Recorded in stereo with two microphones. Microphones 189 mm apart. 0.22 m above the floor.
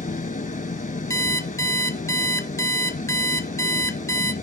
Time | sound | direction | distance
0.0 | an engine running | 45° left (ahead or behind) | 0.7 m
1.1 | an alarm clock | 15° left (ahead or behind) | 0.6 m